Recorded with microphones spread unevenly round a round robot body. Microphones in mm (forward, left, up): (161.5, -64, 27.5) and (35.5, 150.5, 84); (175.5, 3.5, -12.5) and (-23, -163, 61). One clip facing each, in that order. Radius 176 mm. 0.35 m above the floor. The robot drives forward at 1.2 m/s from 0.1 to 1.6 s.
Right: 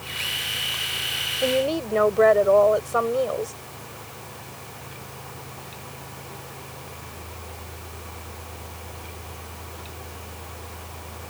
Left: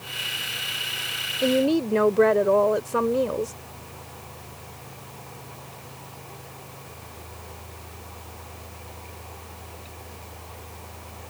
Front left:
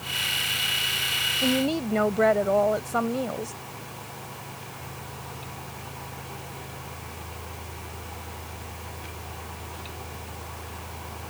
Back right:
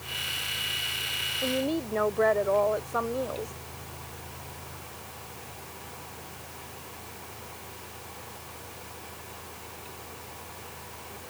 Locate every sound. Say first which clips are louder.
1.4 s a woman speaking: left 3 dB, front left 4 dB; 50° left; by 3.5 s 55° left